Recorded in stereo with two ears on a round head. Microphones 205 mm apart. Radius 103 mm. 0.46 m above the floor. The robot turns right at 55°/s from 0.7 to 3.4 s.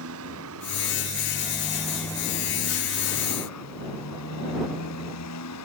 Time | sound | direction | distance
0.0 | a motorcycle | 70° right | ?